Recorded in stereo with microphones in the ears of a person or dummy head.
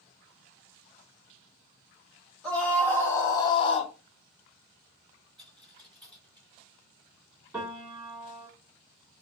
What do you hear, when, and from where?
2.4 s a scream: 10° left (ahead or behind), 1.6 m; by 3.9 s 40° left (ahead or behind), 0.9 m
5.4 s a dropped coin: 5° left (ahead or behind), 2.0 m
7.5 s a piano: 5° right (ahead or behind), 2 m